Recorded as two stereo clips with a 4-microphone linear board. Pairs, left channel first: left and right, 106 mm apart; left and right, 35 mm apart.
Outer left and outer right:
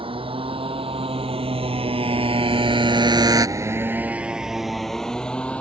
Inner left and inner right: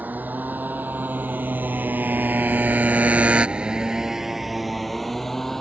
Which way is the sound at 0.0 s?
60° right (ahead or behind).